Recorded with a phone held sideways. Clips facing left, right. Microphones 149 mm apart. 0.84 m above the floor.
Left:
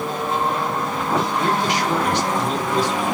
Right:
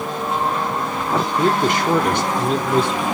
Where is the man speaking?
55° right (ahead or behind), 0.9 m.